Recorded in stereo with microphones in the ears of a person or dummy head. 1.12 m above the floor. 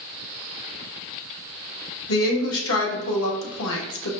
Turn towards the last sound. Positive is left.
turn(degrees=85)